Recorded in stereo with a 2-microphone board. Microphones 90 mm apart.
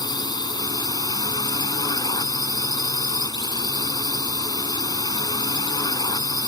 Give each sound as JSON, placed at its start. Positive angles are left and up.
{"t": 0.0, "sound": "a drone", "side_deg": 50}